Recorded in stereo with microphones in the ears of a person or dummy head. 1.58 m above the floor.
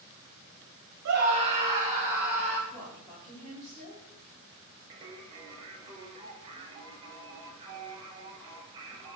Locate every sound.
1.1 s a scream: 65° right (ahead or behind), 0.5 m; by 2.6 s 5° right (ahead or behind), 1.6 m
2.7 s a woman speaking: 5° right (ahead or behind), 1.3 m
4.9 s singing: 30° right (ahead or behind), 0.6 m